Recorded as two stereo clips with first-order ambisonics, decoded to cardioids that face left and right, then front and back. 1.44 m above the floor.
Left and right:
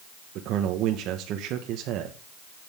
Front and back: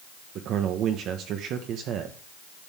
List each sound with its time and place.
0.3 s a man speaking: 135° right, 1.1 m